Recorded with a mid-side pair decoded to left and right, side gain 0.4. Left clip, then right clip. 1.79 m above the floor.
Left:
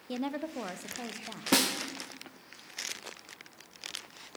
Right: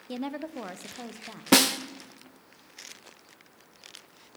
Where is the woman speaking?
5° right, 0.6 m; by 1.4 s straight ahead, 1.4 m.